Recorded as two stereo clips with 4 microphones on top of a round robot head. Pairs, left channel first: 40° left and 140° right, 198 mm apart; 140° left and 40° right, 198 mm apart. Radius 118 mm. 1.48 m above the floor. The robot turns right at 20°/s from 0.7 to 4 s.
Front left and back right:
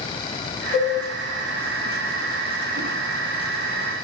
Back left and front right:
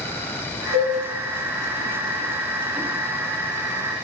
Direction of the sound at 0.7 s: 35° right.